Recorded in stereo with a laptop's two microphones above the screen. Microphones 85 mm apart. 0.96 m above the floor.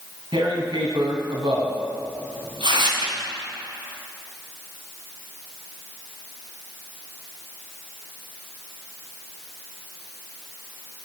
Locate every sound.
0.3 s tearing paper: 70° right (ahead or behind), 2 m